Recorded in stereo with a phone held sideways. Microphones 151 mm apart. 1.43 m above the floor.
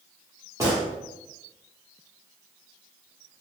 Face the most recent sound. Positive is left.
turn(degrees=-25)  # may be behind; listen again after turning